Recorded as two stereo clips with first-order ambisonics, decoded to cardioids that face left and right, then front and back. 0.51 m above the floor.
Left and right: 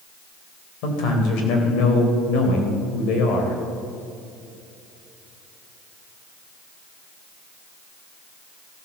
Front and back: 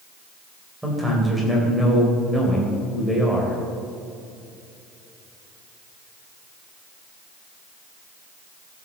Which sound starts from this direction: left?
A man speaking, at 0.8 s.